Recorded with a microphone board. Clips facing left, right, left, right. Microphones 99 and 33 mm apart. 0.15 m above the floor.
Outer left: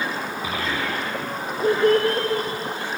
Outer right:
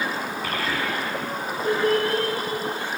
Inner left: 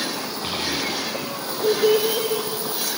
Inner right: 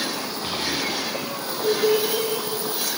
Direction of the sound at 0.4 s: 15° left (ahead or behind).